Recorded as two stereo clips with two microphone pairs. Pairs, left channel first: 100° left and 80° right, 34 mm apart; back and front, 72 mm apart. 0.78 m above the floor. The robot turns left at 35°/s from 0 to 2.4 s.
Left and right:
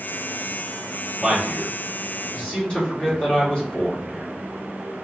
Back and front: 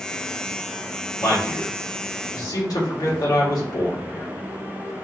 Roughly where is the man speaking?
Behind.